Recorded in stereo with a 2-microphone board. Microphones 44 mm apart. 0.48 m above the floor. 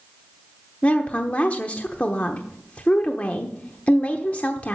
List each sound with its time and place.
0.8 s a woman speaking: 35° left (ahead or behind), 0.9 m